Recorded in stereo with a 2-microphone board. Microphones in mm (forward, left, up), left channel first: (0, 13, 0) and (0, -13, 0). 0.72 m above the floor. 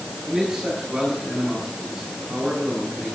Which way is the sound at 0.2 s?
35° right (ahead or behind).